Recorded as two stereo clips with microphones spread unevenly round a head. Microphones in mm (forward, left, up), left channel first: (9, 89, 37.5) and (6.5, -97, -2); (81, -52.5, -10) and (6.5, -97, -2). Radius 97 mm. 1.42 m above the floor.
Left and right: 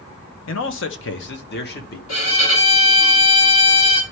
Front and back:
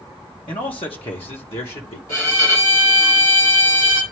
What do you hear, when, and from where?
0.5 s a man speaking: 85° left, 0.9 m; by 2.0 s 55° left, 1.3 m
2.1 s a violin: 80° left, 2.5 m